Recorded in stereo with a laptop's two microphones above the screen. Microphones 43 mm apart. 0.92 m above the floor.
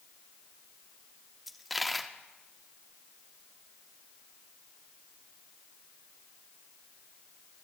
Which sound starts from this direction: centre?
A dropped coin, at 1.5 s.